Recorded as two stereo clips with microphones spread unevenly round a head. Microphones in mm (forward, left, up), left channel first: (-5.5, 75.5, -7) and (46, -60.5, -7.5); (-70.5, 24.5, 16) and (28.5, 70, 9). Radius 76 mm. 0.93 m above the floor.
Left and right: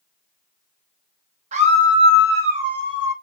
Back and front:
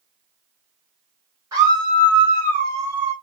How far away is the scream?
About 1.1 m.